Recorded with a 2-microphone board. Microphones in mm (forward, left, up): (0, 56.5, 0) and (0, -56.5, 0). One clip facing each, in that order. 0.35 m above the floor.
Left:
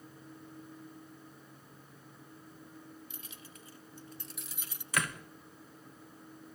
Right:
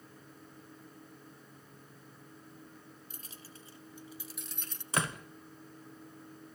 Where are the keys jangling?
40° right (ahead or behind), 1.2 m; by 4.8 s 10° left (ahead or behind), 1.5 m.